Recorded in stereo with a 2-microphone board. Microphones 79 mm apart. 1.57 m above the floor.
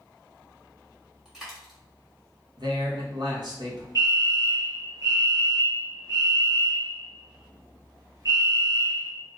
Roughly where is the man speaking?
Right.